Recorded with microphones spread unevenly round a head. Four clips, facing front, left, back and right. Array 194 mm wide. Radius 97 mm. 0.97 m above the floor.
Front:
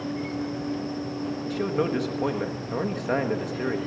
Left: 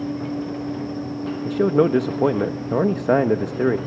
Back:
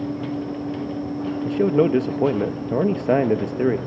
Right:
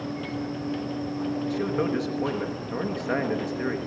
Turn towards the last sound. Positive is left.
turn(degrees=130)